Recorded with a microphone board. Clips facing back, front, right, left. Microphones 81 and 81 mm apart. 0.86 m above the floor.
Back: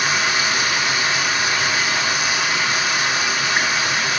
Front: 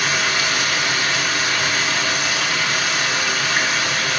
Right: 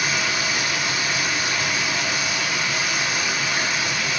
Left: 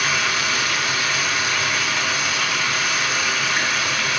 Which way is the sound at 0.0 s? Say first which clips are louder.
Back 1 dB, left 2 dB; 105° left.